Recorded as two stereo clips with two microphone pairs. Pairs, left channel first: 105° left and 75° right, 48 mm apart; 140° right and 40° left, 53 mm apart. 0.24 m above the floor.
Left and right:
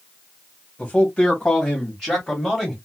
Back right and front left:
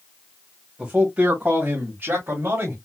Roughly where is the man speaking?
Left.